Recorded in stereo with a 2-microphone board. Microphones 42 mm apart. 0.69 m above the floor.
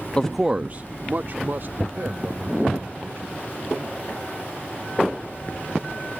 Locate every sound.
0.2 s a man speaking: 20° left (ahead or behind); by 4.1 s 55° right (ahead or behind)